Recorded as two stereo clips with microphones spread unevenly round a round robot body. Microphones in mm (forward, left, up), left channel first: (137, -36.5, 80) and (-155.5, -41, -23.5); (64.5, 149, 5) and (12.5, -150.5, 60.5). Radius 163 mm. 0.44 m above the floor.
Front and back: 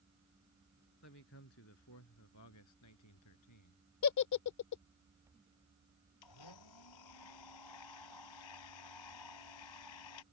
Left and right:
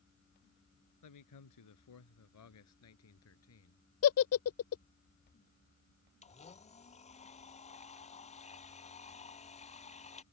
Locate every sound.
1.0 s a man speaking: 55° left; by 3.8 s 35° left
4.0 s a giggle: 45° left
6.2 s a blender: 10° left